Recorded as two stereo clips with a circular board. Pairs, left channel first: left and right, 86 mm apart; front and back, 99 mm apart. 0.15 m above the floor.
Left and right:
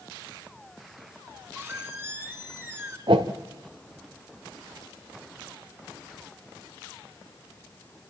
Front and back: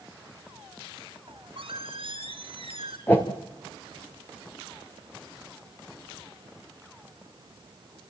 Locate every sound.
1.3 s a squeak: 155° right, 3 m
3.1 s a whoosh: 70° right, 2.5 m